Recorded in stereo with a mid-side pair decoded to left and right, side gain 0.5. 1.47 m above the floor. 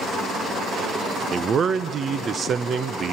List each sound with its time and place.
1.3 s a man speaking: 45° right, 0.7 m